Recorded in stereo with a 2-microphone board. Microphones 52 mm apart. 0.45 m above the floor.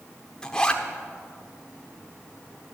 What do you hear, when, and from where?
0.4 s a zipper: 15° left (ahead or behind), 1.2 m